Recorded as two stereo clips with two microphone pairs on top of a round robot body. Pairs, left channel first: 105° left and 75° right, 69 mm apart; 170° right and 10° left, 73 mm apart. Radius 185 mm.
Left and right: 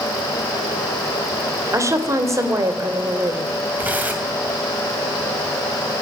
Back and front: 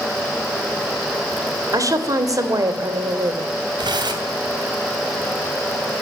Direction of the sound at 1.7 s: 30° right.